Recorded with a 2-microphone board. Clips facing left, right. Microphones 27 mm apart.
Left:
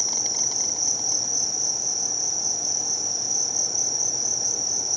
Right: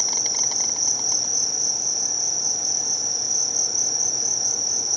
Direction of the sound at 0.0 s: 25° right (ahead or behind).